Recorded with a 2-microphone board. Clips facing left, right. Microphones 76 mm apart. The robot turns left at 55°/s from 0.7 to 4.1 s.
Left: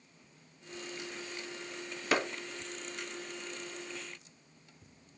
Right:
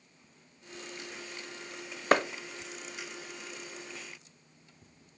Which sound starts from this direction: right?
A clap, at 2.1 s.